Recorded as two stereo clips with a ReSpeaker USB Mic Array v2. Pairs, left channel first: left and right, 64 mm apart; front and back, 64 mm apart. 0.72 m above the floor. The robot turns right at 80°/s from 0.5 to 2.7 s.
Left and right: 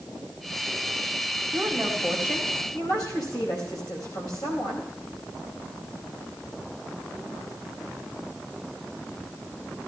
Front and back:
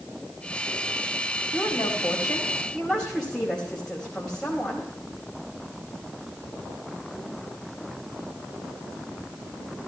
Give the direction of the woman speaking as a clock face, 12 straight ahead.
12 o'clock.